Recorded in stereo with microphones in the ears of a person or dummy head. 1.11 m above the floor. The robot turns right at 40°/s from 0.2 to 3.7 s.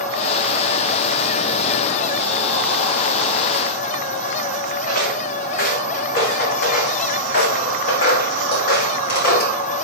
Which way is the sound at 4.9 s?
50° left (ahead or behind).